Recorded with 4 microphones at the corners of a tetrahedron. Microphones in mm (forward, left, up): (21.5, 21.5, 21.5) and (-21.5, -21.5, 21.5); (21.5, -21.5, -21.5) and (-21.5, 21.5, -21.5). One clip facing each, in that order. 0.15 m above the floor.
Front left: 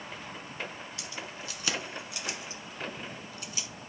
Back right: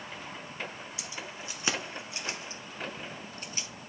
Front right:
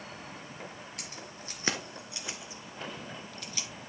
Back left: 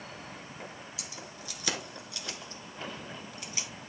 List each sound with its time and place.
1.0 s keys jangling: 65° right, 1.6 m; by 3.7 s 170° right, 1.4 m